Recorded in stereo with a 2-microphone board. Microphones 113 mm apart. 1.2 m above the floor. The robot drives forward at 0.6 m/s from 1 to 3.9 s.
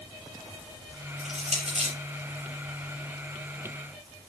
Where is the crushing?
70° right (ahead or behind), 5 m; by 1.9 s 65° right (ahead or behind), 5 m.